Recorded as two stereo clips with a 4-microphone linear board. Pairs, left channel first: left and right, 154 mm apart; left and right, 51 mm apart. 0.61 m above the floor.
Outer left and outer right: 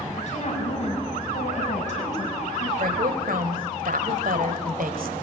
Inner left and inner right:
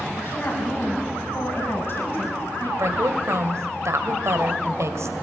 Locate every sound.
0.2 s a woman speaking: 50° left (ahead or behind), 5.5 m
2.8 s a woman speaking: 75° right (ahead or behind), 2.5 m